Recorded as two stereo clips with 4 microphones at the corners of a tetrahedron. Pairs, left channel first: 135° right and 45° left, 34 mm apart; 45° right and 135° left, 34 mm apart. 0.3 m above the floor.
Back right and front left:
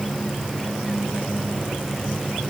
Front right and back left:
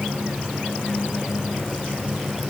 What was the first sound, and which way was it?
Only background noise.